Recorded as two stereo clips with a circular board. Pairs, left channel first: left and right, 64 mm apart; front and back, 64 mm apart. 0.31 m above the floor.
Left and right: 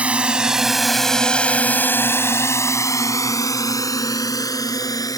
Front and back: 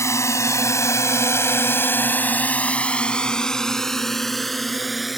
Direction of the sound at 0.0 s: 25° right.